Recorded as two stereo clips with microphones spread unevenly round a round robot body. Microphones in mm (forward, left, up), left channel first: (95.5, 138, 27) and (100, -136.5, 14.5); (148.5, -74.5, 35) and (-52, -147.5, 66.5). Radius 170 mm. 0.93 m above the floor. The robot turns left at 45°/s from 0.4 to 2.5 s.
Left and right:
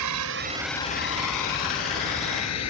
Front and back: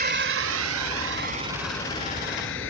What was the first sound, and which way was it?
A drone, 115° right.